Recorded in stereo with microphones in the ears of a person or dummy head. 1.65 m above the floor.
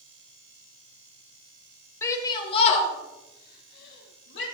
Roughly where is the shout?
Centre.